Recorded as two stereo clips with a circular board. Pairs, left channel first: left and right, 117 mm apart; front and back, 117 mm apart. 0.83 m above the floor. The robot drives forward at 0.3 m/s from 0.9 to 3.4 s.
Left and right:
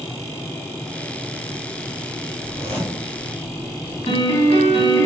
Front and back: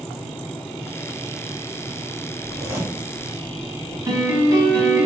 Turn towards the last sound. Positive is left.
turn(degrees=120)